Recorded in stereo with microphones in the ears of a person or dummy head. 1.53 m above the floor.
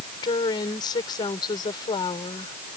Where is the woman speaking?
25° left (ahead or behind).